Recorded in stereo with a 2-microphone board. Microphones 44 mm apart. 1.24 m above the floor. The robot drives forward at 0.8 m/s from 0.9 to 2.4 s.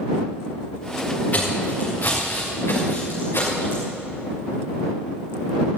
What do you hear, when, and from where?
1.3 s footsteps: 40° left (ahead or behind), 7 m; by 3.8 s 65° left (ahead or behind), 5.5 m